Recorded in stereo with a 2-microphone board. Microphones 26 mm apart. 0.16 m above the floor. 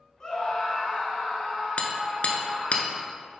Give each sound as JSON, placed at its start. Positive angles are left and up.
{"t": 0.2, "sound": "a scream", "side_deg": 30, "distance_m": 1.7}
{"t": 1.8, "sound": "hammering", "side_deg": 55, "distance_m": 1.0}